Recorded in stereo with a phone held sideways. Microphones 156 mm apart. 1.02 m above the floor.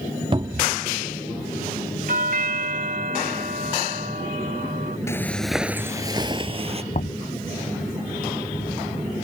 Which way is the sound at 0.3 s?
35° right (ahead or behind).